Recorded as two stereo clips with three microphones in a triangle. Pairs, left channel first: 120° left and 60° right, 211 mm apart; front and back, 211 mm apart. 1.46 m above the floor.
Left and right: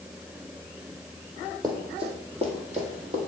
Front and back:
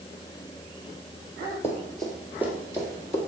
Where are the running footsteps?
50° right, 1.5 m; by 3.2 s 110° right, 2.5 m.